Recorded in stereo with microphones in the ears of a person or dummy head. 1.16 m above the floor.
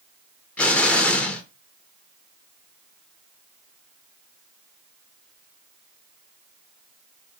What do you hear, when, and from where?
0.6 s an explosion: 5° left (ahead or behind), 0.5 m